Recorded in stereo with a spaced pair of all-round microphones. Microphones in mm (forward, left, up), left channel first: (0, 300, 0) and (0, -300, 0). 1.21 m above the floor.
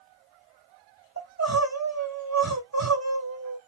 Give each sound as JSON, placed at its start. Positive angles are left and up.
{"t": 1.2, "sound": "crying", "side_deg": -25, "distance_m": 1.6}